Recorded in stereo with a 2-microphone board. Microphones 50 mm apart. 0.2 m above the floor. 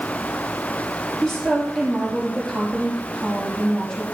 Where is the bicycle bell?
No bicycle bell in this recording.